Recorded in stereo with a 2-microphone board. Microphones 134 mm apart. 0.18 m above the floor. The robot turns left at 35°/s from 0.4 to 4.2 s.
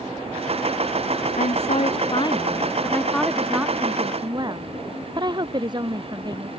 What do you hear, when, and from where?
1.4 s a woman speaking: 70° left; by 6.5 s 30° right